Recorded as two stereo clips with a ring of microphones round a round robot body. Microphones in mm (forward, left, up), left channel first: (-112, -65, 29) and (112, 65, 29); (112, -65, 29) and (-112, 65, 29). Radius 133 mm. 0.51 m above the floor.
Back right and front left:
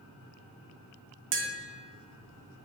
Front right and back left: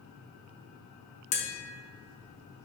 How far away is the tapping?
About 0.9 m.